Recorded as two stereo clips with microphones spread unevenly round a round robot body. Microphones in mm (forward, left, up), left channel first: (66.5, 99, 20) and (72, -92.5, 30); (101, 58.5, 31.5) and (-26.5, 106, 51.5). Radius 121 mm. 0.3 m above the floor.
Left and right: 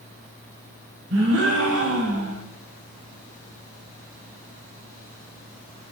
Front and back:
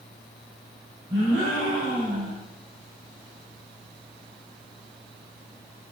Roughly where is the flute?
No flute in this recording.